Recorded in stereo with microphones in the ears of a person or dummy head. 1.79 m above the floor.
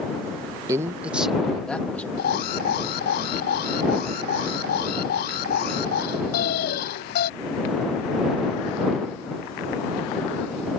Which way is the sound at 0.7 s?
20° right (ahead or behind).